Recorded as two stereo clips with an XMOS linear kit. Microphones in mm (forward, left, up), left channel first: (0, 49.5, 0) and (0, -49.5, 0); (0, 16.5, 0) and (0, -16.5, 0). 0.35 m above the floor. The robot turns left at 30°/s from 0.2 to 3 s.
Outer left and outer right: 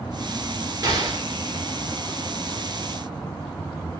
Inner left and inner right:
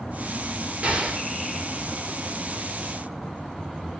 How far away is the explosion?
About 1.0 m.